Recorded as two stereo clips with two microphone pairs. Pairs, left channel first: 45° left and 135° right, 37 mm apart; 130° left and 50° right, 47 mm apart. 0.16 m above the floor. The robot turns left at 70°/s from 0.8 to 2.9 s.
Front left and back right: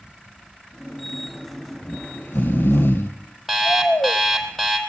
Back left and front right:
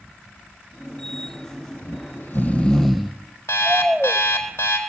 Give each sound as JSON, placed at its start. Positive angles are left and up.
{"t": 1.8, "sound": "snoring", "azimuth_deg": 115, "distance_m": 2.0}
{"t": 3.5, "sound": "an alarm clock", "azimuth_deg": 135, "distance_m": 3.5}